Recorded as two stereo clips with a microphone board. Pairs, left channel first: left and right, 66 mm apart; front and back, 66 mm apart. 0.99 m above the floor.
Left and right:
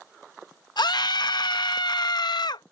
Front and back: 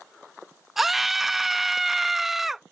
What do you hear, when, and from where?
0.8 s a scream: 95° left